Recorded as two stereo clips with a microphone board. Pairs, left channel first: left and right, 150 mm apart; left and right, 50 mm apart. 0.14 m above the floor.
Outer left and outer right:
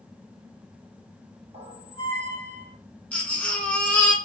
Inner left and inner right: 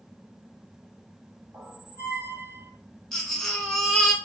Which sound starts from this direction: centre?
A baby crying, at 3.1 s.